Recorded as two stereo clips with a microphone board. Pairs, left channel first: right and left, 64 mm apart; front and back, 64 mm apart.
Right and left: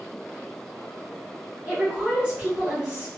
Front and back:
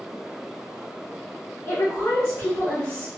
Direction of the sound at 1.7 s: 40° left.